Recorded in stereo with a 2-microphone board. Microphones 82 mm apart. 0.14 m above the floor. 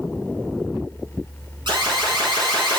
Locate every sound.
1.7 s an alarm: 70° right (ahead or behind), 5 m